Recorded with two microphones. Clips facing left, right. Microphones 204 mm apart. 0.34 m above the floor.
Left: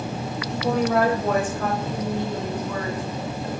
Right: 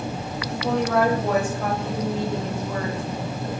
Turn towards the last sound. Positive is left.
turn(degrees=-30)  # may be behind; listen again after turning